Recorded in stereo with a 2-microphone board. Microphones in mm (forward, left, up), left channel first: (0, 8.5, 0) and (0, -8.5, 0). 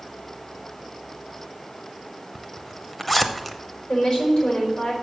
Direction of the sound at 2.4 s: 5° left (ahead or behind).